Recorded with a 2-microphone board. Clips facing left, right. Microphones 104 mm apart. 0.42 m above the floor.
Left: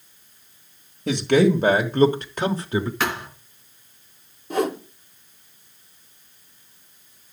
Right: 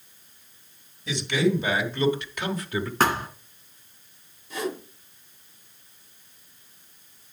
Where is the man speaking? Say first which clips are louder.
Left 7 dB; 55° left (ahead or behind), 1.5 m; by 2.9 s 25° left (ahead or behind), 0.9 m.